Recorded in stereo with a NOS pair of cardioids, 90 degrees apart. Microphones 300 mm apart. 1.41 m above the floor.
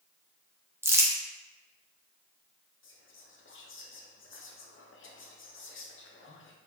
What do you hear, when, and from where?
0.8 s crumpling: 10° right, 1.0 m
2.8 s whispering: 40° left, 1.1 m